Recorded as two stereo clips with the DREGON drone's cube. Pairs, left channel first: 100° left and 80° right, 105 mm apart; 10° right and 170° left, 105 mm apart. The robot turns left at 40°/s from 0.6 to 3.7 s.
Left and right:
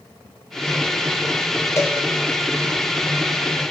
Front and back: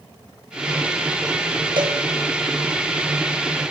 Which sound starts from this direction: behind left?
A cowbell, at 1.8 s.